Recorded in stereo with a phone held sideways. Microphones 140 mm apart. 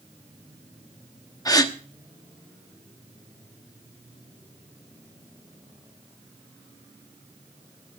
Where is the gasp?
25° left (ahead or behind), 1.0 m.